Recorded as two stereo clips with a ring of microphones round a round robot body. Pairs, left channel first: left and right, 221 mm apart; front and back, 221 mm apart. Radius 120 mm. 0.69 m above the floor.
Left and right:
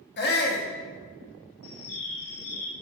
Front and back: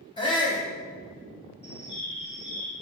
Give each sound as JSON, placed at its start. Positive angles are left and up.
{"t": 0.2, "sound": "a shout", "azimuth_deg": 65, "distance_m": 1.4}
{"t": 1.6, "sound": "a bird", "azimuth_deg": 65, "distance_m": 1.2}